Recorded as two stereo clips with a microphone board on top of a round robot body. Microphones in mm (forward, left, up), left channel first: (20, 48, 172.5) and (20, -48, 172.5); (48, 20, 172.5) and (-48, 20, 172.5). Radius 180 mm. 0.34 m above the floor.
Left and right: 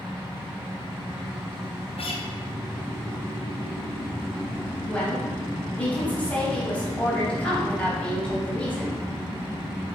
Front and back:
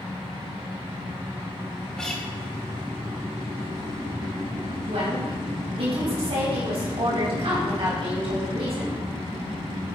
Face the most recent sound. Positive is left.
turn(degrees=165)